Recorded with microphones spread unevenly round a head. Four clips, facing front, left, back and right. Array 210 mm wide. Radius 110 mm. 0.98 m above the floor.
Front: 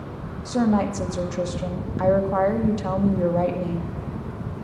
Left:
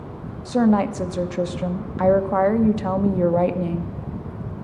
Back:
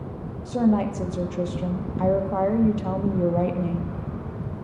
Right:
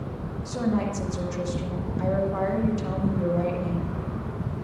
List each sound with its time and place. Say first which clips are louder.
0.5 s a woman speaking: left 8 dB, front 1 dB; 75° left, 0.9 m